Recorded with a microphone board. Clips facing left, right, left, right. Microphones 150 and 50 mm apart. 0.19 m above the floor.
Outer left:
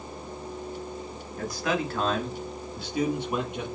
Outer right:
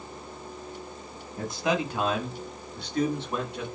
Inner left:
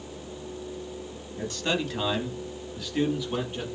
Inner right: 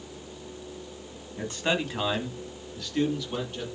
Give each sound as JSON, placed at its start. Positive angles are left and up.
{"t": 1.4, "sound": "a man speaking", "side_deg": -25, "distance_m": 1.2}